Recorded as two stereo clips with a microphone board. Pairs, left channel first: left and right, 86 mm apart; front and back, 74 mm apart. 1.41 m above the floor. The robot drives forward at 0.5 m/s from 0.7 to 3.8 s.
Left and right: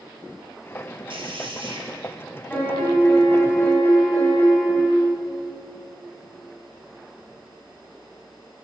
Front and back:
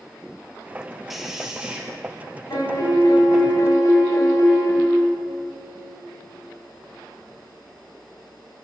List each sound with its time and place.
1.1 s a man speaking: 90° right, 1.5 m; by 1.9 s 105° right, 1.6 m
2.5 s a piano: 25° left, 2.5 m; by 5.0 s 30° left, 2 m